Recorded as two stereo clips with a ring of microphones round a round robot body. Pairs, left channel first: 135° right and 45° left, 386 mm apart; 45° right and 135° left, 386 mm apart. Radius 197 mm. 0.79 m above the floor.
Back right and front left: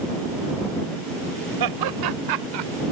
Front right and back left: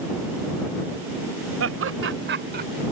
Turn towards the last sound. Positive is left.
turn(degrees=70)